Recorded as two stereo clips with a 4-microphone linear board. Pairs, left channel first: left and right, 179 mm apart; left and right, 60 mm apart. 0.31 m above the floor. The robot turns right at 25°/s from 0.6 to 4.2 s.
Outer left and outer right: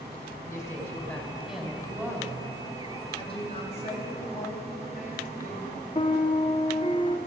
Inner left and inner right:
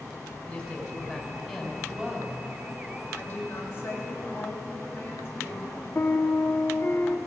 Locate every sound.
0.5 s a woman speaking: 160° left, 2 m; by 2.5 s 155° right, 2 m
3.2 s a woman speaking: 30° left (ahead or behind), 2.5 m; by 5.8 s 45° left (ahead or behind), 2.5 m
6.0 s a piano: 40° left (ahead or behind), 0.6 m